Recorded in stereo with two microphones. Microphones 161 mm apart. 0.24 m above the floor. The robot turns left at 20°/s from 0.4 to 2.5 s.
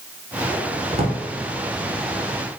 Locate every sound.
0.9 s a drawer: 40° right (ahead or behind), 1.3 m; by 1.2 s 45° right (ahead or behind), 1.3 m